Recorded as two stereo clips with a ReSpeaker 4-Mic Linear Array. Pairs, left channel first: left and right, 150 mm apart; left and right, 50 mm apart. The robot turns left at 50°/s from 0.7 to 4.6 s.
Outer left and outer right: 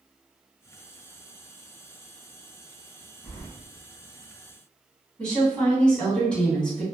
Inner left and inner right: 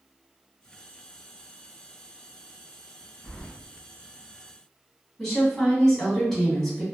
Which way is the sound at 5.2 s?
10° left (ahead or behind).